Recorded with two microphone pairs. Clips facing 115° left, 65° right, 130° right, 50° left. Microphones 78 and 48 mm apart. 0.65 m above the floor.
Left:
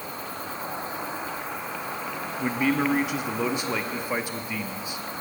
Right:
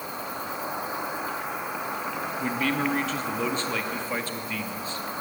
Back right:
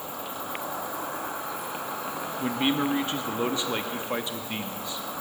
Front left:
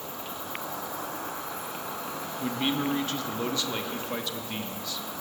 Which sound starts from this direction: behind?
A man speaking, at 2.4 s.